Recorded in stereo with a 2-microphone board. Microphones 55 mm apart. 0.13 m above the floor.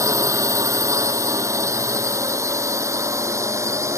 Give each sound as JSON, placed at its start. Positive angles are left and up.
{"t": 0.0, "sound": "a drone", "side_deg": -70}